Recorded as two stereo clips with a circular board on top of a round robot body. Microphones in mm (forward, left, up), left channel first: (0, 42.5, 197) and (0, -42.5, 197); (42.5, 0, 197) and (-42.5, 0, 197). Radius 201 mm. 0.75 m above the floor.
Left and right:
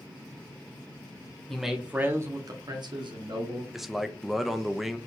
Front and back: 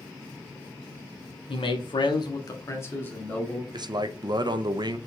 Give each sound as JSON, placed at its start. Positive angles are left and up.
{"t": 1.5, "sound": "a man speaking", "azimuth_deg": 5, "distance_m": 1.5}
{"t": 3.7, "sound": "a man speaking", "azimuth_deg": -175, "distance_m": 0.8}